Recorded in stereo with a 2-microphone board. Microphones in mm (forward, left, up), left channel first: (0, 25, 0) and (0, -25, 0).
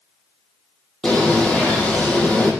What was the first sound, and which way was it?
A bird, 20° left (ahead or behind).